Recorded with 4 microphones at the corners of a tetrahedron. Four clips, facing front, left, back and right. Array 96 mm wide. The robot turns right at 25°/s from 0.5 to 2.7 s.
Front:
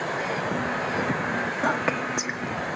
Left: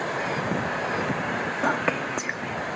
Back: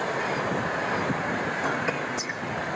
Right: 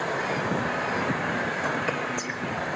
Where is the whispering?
45° left, 1.7 m; by 2.7 s 75° left, 1.7 m.